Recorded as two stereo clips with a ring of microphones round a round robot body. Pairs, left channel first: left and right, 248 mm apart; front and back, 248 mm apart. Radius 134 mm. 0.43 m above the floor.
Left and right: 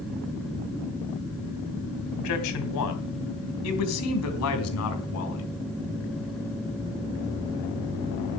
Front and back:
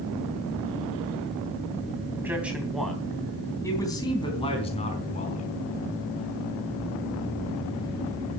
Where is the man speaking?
100° left, 3 m; by 5.5 s 65° left, 4.5 m.